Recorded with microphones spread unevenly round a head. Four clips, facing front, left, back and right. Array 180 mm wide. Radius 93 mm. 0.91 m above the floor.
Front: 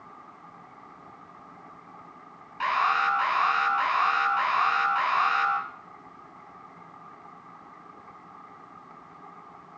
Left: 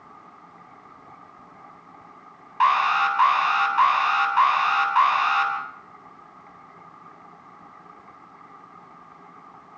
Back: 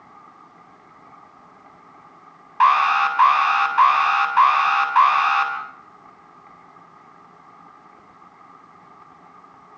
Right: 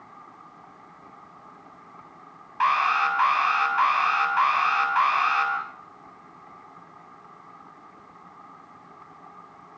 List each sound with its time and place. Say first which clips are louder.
2.6 s an alarm: left 2 dB, back 9 dB; 170° left, 8 m